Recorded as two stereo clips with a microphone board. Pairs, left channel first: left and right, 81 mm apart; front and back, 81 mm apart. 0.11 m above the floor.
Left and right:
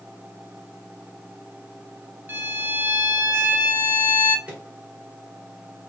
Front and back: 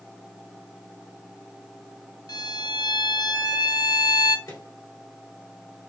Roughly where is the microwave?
Ahead right.